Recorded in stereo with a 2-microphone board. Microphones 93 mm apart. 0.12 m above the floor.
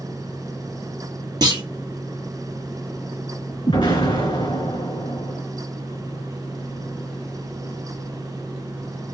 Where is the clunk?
50° right (ahead or behind), 2 m.